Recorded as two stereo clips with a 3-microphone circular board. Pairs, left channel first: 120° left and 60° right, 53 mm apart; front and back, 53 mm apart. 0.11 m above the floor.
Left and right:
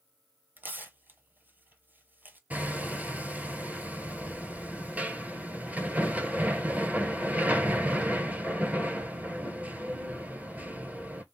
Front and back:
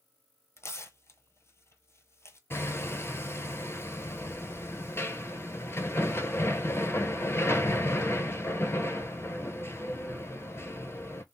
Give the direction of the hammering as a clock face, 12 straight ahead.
12 o'clock.